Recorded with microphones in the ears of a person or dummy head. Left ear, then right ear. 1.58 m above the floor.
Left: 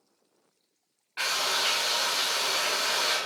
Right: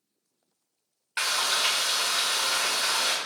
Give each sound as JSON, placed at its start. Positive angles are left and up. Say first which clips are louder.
{"t": 1.2, "sound": "frying", "louder": "right 2 dB", "side_deg": -50, "distance_m": 1.5}